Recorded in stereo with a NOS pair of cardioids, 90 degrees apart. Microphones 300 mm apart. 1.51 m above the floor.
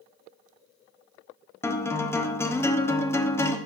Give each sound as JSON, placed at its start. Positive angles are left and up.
{"t": 1.6, "sound": "a guitar", "azimuth_deg": 10, "distance_m": 0.8}